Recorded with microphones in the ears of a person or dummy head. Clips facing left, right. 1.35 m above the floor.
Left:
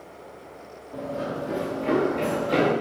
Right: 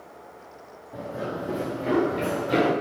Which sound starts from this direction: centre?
Running footsteps, at 0.9 s.